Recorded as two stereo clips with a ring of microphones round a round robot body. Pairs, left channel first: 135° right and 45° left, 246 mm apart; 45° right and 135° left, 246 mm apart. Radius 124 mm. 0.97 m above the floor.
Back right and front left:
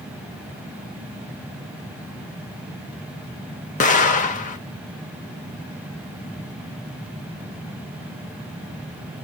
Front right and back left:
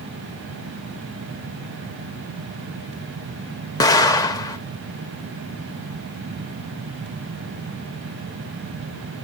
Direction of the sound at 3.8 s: 110° right.